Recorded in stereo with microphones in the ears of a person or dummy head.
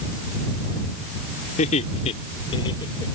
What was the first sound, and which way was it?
Laughter, 45° left (ahead or behind).